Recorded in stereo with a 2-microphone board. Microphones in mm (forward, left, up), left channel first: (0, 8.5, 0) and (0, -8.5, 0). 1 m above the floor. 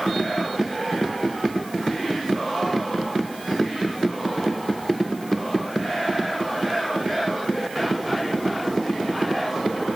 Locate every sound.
Only background noise.